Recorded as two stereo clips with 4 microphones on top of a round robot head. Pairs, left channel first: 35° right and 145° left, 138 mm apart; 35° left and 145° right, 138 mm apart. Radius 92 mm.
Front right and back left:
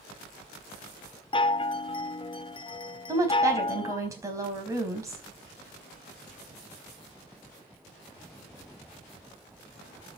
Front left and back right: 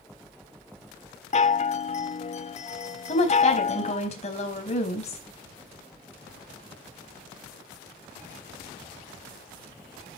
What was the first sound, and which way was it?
A chime, 10° left.